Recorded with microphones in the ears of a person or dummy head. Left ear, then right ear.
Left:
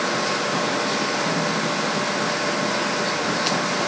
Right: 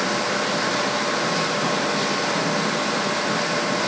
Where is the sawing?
No sawing in this recording.